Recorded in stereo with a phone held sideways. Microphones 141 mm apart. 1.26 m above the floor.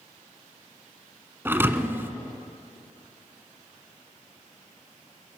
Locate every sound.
1.4 s a thud: 15° right (ahead or behind), 1.4 m